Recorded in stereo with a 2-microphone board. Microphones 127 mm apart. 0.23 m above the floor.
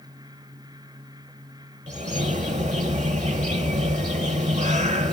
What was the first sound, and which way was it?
A bird, 65° right (ahead or behind).